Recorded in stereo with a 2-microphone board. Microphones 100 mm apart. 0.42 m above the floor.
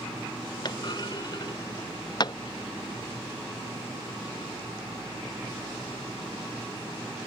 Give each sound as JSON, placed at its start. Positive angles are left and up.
{"t": 0.7, "sound": "a clunk", "side_deg": 45}